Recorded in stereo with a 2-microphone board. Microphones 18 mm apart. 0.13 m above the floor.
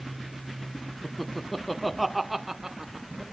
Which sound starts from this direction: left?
Laughter, at 1.0 s.